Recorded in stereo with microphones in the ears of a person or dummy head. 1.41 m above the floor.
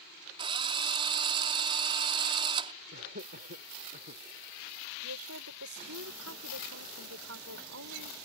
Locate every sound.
0.4 s a drill: 25° right (ahead or behind)
2.9 s laughter: 45° right (ahead or behind)
5.0 s a woman speaking: 85° right